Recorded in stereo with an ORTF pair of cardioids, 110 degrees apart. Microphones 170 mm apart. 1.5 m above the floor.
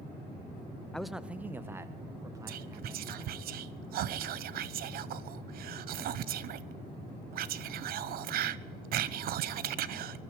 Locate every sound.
0.9 s a man speaking: 5° left, 0.6 m; by 3.5 s 20° right, 3 m
2.5 s whispering: 65° right, 0.8 m